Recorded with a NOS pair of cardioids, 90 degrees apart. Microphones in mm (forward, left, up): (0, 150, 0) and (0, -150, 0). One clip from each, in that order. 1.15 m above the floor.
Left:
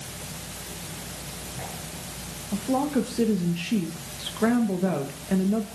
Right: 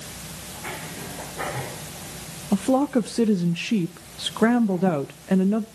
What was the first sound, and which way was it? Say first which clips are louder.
A woman speaking: right 4 dB; 50° right.